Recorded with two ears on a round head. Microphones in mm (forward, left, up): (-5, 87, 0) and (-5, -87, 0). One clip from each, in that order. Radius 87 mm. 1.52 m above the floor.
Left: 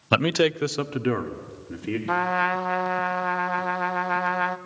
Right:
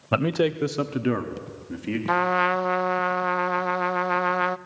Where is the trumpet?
20° right (ahead or behind), 0.6 m.